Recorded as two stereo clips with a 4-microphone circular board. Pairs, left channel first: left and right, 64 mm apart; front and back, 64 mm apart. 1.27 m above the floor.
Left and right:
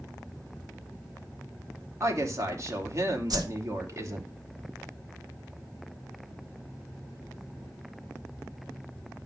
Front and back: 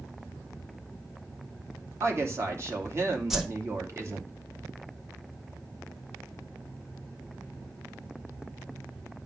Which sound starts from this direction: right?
A whoosh, at 3.3 s.